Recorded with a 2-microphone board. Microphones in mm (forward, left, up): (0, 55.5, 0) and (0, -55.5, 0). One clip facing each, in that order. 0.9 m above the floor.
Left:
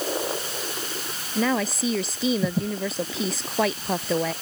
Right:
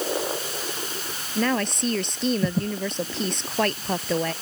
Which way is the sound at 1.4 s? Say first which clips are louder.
Even; centre (ahead or behind).